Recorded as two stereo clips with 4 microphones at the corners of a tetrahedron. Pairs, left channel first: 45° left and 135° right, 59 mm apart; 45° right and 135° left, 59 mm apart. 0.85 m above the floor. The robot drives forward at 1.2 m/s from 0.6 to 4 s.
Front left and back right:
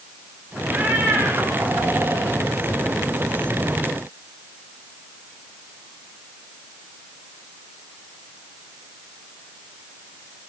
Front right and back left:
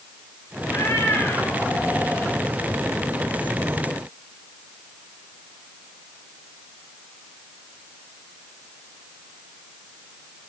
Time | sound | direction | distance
0.7 | a cat meowing | 65° right | 3 m